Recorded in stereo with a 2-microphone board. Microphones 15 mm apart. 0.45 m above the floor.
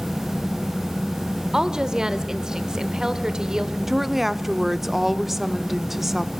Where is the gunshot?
I don't hear a gunshot.